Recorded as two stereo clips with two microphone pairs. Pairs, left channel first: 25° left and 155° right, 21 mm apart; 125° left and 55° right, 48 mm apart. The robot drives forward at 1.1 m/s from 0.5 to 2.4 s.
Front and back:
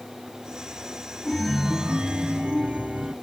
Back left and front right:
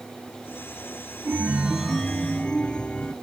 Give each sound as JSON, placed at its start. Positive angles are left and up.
{"t": 1.2, "sound": "a chime", "azimuth_deg": -35, "distance_m": 0.6}